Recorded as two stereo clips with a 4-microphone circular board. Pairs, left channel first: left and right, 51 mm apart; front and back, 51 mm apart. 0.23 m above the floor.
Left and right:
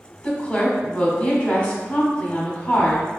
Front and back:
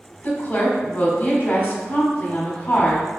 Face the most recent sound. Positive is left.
turn(degrees=35)